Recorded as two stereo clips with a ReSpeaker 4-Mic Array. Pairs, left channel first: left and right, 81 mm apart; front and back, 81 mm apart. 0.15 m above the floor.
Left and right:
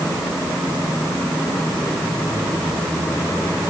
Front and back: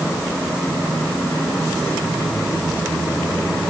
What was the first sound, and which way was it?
Only background noise.